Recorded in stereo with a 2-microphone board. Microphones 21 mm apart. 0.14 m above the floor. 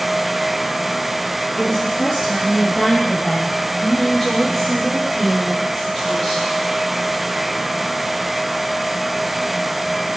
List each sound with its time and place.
1.6 s a woman speaking: centre (ahead or behind), 2.5 m; by 6.5 s 10° left (ahead or behind), 5 m